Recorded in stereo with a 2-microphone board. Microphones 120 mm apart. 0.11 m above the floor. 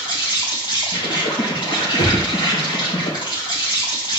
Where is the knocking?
35° left (ahead or behind), 3 m.